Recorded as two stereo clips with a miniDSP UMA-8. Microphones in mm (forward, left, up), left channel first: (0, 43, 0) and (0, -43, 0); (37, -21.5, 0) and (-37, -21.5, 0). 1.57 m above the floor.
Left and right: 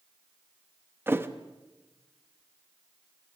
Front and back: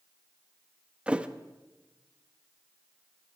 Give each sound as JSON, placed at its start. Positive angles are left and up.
{"t": 1.1, "sound": "a thud", "azimuth_deg": -120, "distance_m": 1.0}